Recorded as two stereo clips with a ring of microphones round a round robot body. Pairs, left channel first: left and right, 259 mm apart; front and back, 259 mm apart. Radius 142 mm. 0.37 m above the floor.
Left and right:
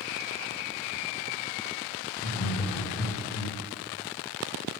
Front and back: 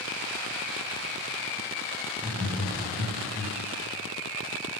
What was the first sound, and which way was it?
Laughter, 90° left.